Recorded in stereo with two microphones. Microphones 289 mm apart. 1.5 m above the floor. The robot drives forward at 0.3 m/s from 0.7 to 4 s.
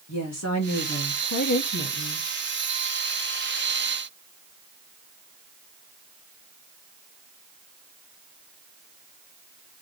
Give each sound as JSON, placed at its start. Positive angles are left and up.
{"t": 0.1, "sound": "a woman speaking", "side_deg": 70, "distance_m": 1.3}